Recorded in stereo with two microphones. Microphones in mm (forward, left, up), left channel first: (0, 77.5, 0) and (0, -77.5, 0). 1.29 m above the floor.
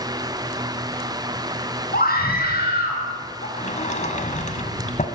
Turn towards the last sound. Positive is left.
turn(degrees=55)  # may be behind; listen again after turning